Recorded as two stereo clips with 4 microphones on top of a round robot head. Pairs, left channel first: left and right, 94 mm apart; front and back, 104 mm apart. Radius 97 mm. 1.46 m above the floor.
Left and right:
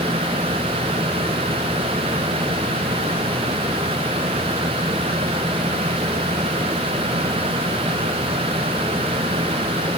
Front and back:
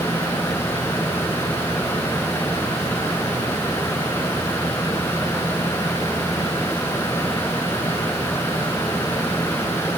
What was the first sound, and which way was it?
Only background noise.